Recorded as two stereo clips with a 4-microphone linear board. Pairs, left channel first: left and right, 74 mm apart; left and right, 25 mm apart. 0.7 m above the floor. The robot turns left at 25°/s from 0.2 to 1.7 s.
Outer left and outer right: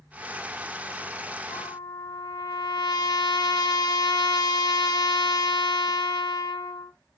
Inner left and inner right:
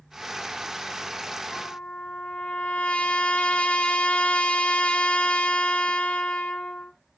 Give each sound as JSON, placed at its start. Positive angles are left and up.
{"t": 1.5, "sound": "a trumpet", "side_deg": 65, "distance_m": 1.2}